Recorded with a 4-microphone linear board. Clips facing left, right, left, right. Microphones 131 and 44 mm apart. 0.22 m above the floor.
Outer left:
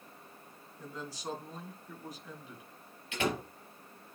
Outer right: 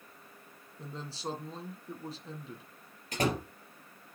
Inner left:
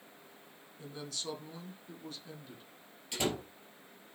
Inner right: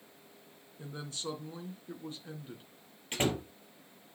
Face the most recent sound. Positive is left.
turn(degrees=-40)  # may be behind; listen again after turning